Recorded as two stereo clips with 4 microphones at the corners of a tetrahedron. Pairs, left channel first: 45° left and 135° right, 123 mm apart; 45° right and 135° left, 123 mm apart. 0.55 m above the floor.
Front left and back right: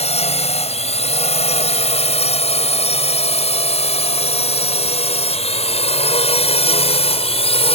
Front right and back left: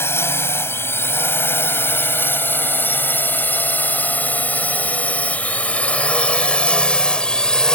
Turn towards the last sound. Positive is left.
turn(degrees=40)